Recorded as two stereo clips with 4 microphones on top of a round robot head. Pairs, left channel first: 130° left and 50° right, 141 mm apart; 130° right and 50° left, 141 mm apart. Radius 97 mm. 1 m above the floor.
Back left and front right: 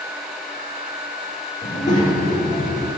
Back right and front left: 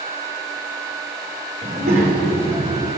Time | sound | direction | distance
1.6 | a child speaking | 85° left | 1.4 m